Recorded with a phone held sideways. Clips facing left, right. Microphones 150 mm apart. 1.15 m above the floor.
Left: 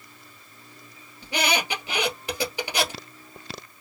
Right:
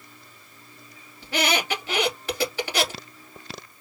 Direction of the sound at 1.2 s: 15° left (ahead or behind).